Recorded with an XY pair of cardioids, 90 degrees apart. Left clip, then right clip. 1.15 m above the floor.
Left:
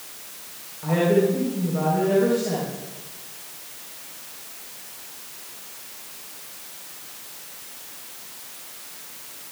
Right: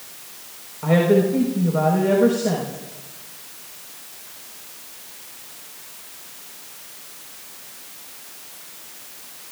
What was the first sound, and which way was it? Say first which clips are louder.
A woman speaking: right 3 dB; 65° right.